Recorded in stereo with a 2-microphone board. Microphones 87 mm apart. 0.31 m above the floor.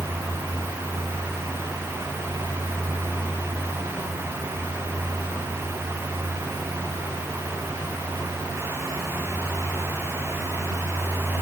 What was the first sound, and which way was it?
Only background noise.